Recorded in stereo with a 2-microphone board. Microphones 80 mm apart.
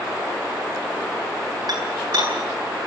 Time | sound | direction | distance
1.7 | dishes clattering | 55° right (ahead or behind) | 9 m